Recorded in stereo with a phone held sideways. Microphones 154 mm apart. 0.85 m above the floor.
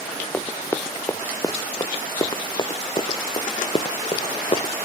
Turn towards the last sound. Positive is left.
turn(degrees=45)  # may be behind; listen again after turning